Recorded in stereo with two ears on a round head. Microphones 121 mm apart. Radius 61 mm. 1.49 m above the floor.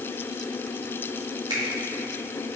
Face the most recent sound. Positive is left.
turn(degrees=-35)  # may be behind; listen again after turning